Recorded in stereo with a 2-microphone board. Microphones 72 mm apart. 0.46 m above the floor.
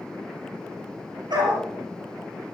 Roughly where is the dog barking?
Right.